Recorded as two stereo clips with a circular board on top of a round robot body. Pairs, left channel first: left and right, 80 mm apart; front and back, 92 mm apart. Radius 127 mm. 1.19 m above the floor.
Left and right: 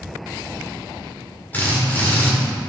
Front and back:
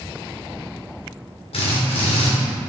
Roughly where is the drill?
Ahead.